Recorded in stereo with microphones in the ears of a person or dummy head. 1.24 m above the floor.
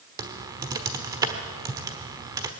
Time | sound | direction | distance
0.2 | typing on a keyboard | 20° right (ahead or behind) | 1.4 m